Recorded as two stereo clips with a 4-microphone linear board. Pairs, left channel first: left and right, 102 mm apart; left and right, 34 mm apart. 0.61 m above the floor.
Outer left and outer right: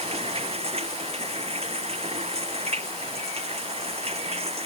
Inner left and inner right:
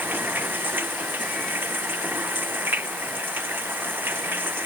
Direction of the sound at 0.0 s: 80° right.